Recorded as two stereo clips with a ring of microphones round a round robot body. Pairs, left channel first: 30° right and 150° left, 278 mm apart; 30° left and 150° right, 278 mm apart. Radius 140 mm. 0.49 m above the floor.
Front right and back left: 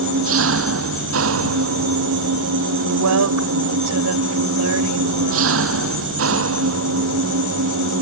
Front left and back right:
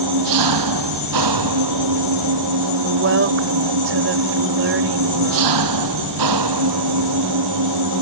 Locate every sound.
0.0 s an engine running: 165° right
2.8 s a woman speaking: 170° left